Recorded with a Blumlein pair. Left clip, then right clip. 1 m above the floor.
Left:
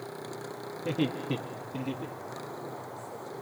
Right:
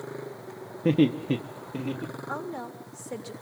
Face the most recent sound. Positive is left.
turn(degrees=-50)